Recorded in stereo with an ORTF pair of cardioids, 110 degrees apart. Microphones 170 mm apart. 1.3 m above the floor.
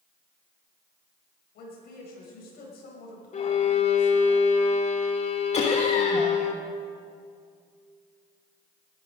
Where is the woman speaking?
65° left, 6 m.